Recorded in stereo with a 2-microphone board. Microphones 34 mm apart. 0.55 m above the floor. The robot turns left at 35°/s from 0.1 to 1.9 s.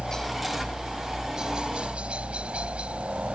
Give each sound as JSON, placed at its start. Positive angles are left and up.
{"t": 0.0, "sound": "a helicopter", "azimuth_deg": 25}